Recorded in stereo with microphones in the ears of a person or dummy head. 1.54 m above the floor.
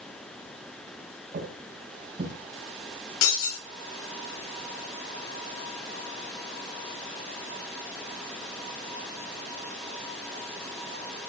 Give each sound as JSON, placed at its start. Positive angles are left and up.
{"t": 1.3, "sound": "footsteps", "side_deg": -45, "distance_m": 4.5}
{"t": 3.2, "sound": "breaking glass", "side_deg": 75, "distance_m": 6.5}